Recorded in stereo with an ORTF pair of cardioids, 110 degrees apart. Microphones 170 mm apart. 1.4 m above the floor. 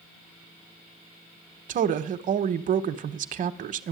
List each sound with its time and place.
1.7 s a woman speaking: 50° right, 1.0 m